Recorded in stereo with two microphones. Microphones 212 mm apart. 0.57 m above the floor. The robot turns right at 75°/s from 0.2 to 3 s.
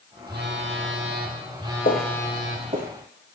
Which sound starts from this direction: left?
Footsteps, at 1.9 s.